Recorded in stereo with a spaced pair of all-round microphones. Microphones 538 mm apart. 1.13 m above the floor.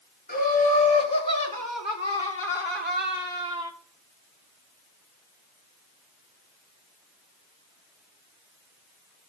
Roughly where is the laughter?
Left.